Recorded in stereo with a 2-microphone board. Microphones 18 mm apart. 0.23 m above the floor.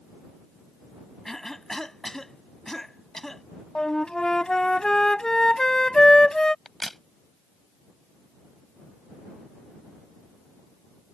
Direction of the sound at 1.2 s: 25° left (ahead or behind).